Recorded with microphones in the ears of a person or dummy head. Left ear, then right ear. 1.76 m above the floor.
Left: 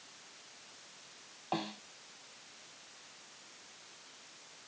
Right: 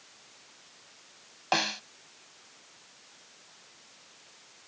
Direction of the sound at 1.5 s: 55° right (ahead or behind).